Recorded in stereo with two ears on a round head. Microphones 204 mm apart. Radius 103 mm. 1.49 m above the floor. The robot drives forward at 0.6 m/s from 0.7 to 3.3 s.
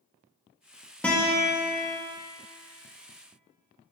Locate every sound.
1.0 s a guitar: 5° left (ahead or behind), 1.2 m; by 2.0 s 10° left (ahead or behind), 0.8 m